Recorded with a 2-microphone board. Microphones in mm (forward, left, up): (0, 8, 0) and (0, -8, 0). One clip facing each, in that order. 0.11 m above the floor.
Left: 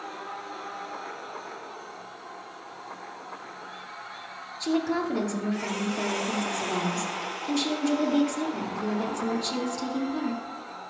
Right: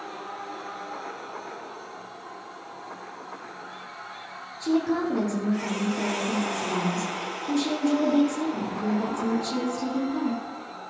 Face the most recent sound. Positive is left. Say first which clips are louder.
# right 2 dB
turn(degrees=25)  # may be behind; listen again after turning